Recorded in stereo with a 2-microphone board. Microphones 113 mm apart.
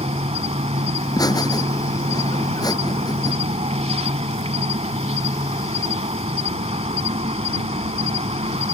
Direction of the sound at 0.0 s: 70° right (ahead or behind).